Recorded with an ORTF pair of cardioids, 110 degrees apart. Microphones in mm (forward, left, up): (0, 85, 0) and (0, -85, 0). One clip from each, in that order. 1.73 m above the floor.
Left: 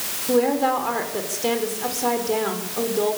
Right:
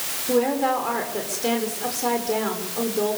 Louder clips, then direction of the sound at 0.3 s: Left 2 dB; 5° left.